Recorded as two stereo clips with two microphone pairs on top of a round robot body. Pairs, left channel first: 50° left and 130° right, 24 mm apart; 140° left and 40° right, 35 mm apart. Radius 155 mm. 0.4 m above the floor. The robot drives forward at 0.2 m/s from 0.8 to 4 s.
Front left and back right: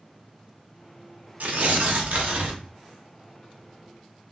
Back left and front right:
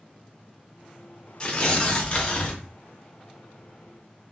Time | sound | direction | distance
1.4 | tearing paper | 155° right | 0.7 m